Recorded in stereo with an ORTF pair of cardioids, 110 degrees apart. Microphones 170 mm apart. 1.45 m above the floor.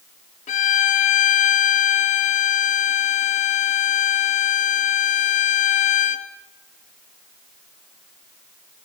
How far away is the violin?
About 1.7 m.